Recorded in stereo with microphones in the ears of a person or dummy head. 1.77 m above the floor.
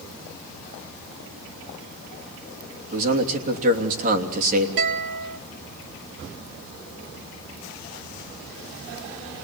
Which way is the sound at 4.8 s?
60° right (ahead or behind).